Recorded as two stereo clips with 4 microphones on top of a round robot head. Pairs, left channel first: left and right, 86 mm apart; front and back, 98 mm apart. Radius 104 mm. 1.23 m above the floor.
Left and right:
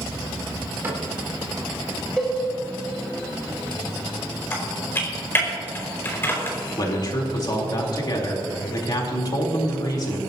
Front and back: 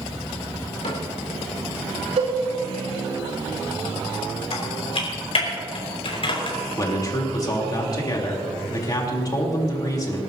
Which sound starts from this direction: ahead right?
A cupboard door, at 0.8 s.